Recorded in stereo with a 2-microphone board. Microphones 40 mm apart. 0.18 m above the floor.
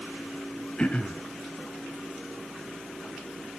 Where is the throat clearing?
30° left (ahead or behind), 1.7 m.